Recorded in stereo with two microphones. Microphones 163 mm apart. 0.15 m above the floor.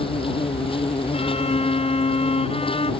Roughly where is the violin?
Left.